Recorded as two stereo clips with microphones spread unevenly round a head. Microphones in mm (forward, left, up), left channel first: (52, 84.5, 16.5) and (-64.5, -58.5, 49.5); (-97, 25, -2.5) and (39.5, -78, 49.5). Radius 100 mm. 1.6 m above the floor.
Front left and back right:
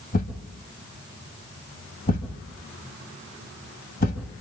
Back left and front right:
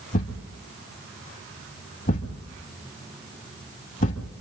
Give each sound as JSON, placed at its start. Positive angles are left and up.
{"t": 0.1, "sound": "a thud", "azimuth_deg": 85, "distance_m": 1.8}